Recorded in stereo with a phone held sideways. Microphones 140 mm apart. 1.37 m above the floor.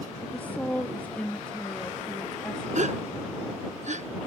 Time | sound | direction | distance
0.2 | a woman speaking | 10° left (ahead or behind) | ?
2.8 | a gasp | 60° right (ahead or behind) | ?